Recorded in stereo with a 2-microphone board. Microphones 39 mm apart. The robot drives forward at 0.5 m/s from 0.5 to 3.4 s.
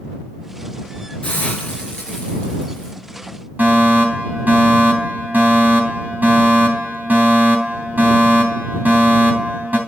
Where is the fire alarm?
50° right (ahead or behind), 4 m.